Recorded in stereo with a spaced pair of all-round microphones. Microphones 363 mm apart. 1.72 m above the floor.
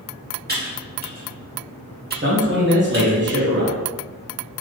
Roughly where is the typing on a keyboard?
Right.